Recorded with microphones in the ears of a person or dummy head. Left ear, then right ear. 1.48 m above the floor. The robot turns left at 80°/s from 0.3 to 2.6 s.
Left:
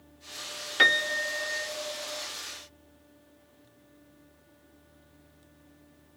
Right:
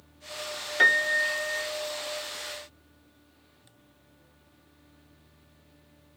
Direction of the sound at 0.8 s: Straight ahead.